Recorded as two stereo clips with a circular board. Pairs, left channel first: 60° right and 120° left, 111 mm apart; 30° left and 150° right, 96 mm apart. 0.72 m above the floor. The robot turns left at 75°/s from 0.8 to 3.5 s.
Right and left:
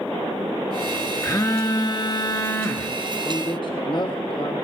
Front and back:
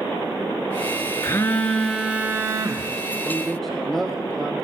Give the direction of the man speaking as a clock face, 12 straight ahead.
1 o'clock.